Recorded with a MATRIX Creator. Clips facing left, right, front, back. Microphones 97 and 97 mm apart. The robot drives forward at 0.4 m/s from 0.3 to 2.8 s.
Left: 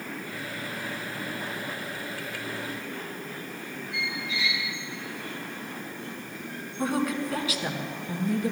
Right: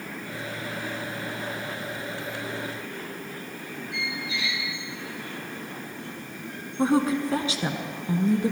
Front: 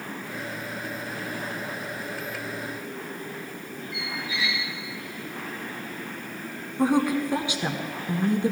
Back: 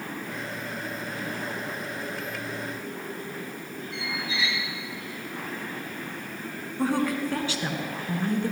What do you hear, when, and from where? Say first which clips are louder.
3.9 s a squeak: even, back 1 dB; 115° right, 2.5 m
6.8 s a woman speaking: right 5 dB, front 3 dB; 60° right, 1.2 m